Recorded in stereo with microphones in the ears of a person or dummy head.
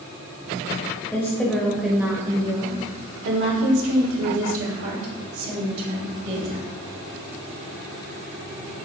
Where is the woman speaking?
5° left (ahead or behind), 1.3 m; by 6.7 s 75° right (ahead or behind), 2 m.